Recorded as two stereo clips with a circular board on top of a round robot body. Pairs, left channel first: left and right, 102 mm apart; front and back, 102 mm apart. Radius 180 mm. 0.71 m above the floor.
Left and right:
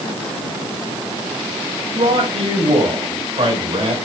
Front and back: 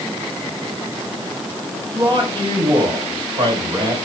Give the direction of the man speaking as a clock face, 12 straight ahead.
4 o'clock.